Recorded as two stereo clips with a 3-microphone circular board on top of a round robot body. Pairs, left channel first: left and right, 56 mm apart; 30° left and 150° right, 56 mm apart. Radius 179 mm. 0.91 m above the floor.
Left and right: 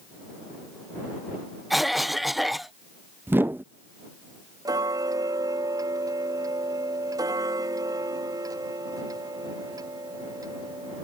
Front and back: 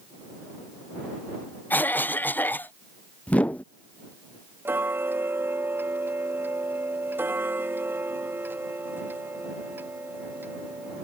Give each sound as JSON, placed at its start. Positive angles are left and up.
{"t": 1.7, "sound": "a cough", "azimuth_deg": -5}
{"t": 3.3, "sound": "a whoosh", "azimuth_deg": -40}
{"t": 4.7, "sound": "ticking", "azimuth_deg": -95}